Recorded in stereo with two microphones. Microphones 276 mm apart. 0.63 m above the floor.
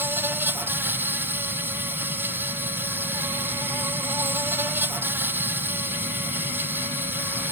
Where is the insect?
10° right (ahead or behind).